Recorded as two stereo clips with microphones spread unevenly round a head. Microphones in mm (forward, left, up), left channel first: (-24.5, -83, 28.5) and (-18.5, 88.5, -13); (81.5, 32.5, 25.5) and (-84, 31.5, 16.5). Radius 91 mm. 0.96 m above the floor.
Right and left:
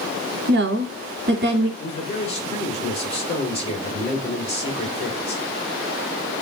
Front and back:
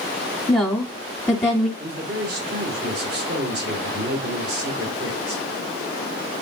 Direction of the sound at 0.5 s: 80° left.